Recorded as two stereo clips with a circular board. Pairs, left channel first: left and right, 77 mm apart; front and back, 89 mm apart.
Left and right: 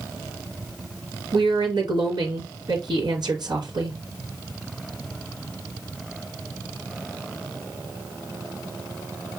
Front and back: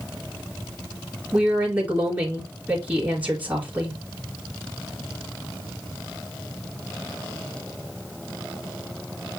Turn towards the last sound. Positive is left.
turn(degrees=-105)